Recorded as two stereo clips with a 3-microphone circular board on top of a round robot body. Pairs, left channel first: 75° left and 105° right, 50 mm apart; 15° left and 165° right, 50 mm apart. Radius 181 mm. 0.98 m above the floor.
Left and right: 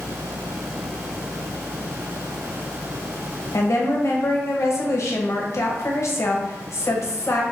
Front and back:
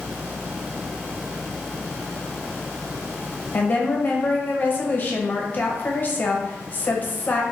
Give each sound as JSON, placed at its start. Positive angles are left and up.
{"t": 3.5, "sound": "a woman speaking", "azimuth_deg": 65, "distance_m": 1.2}